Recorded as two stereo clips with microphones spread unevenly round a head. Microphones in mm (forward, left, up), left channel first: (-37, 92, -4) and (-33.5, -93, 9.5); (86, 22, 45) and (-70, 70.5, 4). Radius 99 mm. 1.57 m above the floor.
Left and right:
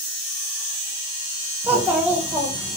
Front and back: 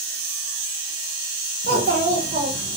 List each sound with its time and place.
1.6 s a child speaking: 160° right, 0.5 m